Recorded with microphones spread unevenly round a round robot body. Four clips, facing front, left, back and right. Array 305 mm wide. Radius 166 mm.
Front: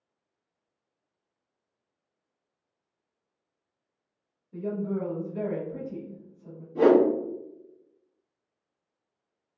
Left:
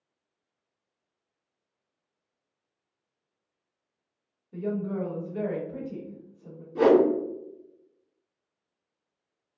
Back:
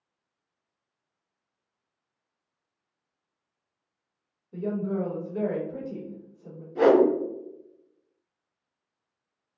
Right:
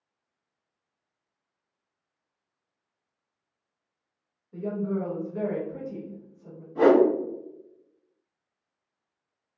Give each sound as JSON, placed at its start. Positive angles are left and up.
{"t": 4.5, "sound": "a woman speaking", "azimuth_deg": 150, "distance_m": 1.0}
{"t": 6.8, "sound": "a whoosh", "azimuth_deg": 100, "distance_m": 1.7}